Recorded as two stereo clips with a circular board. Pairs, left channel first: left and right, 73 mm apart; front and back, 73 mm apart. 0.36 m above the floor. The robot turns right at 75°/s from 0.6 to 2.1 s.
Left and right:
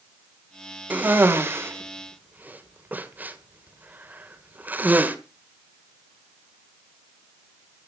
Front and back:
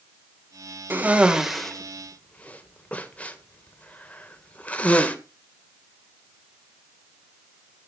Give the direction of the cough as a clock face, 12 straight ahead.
5 o'clock.